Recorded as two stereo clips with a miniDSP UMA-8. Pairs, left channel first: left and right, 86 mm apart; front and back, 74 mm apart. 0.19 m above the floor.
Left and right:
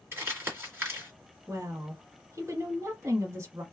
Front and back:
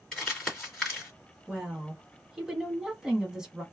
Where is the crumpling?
75° right, 1.8 m.